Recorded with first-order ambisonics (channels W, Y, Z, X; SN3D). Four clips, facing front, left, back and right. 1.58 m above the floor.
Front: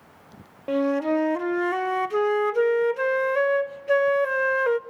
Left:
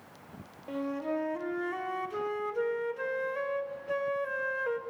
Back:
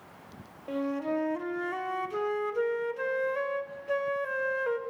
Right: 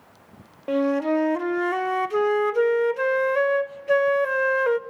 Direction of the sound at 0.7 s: 50° right.